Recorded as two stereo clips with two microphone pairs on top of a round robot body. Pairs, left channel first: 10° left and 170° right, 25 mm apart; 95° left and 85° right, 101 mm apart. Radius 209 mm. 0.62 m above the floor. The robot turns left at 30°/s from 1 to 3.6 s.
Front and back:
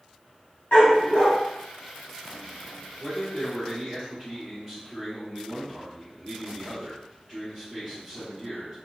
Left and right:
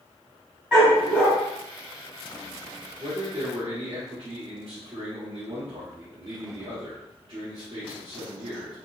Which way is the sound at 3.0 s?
80° right.